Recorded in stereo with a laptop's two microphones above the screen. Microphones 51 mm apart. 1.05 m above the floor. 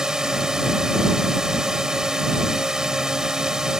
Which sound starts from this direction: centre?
A drone, at 0.0 s.